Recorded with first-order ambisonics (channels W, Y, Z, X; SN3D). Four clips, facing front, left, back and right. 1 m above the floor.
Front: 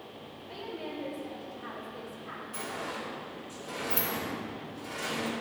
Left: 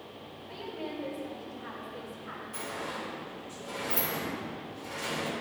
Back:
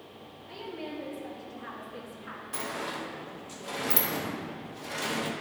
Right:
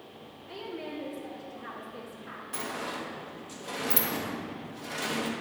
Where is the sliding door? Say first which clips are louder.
Right 3 dB, back 3 dB; 140° right, 0.8 m.